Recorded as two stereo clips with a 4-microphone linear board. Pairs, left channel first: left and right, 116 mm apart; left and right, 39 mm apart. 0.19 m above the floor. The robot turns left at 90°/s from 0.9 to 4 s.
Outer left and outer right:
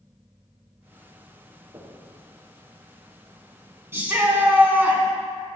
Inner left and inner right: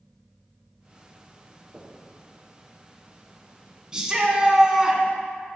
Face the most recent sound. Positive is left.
turn(degrees=-15)  # may be behind; listen again after turning